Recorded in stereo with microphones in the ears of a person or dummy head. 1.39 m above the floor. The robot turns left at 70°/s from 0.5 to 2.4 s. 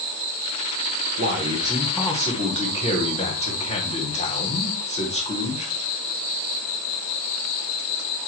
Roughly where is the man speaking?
Behind right.